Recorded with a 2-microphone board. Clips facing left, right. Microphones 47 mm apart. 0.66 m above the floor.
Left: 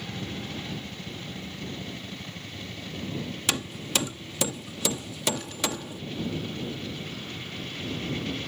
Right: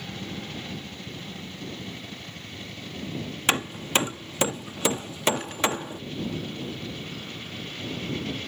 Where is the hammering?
35° right (ahead or behind).